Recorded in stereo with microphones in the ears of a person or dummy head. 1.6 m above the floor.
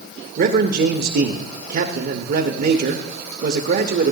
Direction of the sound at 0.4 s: 50° right (ahead or behind).